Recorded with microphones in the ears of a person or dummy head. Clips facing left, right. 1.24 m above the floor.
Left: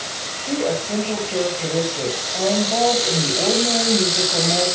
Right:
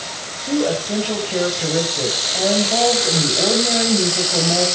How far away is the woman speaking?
About 6 m.